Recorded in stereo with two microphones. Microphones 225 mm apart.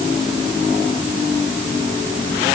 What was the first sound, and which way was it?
Only background noise.